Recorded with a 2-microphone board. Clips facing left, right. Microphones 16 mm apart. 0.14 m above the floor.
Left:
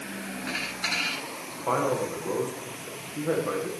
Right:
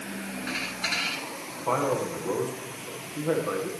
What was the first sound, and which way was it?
A man speaking, 30° left (ahead or behind).